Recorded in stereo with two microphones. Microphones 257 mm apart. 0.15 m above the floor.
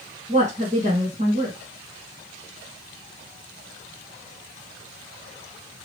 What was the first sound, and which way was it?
A woman speaking, 25° right (ahead or behind).